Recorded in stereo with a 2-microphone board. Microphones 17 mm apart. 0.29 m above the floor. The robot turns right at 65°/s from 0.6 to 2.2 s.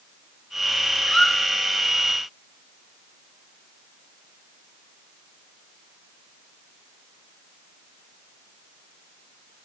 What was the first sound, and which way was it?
A squeak, 60° left (ahead or behind).